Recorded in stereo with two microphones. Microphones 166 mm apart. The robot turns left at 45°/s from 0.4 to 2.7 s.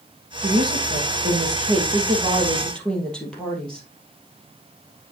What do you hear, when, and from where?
0.4 s a woman speaking: 85° right, 3 m; by 3.9 s 175° left, 3 m